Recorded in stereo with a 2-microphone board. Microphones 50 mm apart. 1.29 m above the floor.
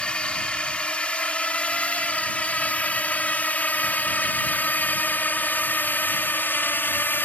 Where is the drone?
20° left (ahead or behind); by 7.2 s 40° left (ahead or behind).